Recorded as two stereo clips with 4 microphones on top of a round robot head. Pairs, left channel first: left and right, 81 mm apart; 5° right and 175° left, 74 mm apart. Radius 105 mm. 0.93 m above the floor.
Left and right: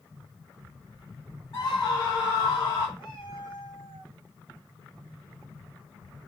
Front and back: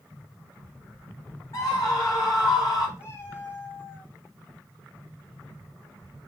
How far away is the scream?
About 4.5 m.